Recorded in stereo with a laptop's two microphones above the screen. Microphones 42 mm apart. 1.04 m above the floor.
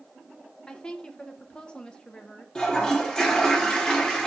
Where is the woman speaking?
20° left (ahead or behind), 0.8 m.